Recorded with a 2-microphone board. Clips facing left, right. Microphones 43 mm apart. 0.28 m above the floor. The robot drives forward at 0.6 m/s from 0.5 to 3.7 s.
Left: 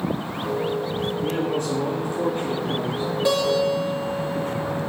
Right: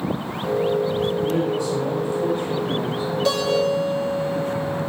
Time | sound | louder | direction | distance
1.2 | a man speaking | right 2 dB | 45° left (ahead or behind) | 1.8 m
3.2 | a guitar | even | 15° left (ahead or behind) | 5 m